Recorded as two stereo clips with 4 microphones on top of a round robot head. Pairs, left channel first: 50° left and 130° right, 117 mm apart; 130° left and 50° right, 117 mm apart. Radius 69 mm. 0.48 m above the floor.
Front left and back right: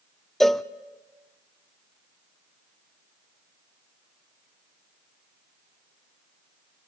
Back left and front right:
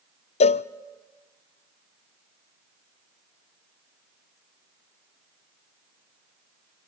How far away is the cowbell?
About 0.6 m.